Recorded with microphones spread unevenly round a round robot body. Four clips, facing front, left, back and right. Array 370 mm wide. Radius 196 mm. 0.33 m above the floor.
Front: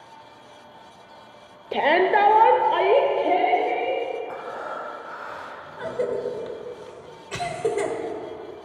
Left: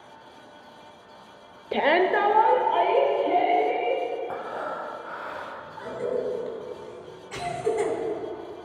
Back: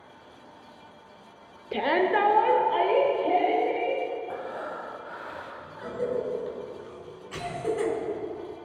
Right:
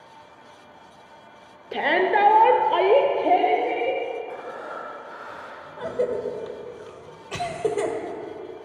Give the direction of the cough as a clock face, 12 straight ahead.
2 o'clock.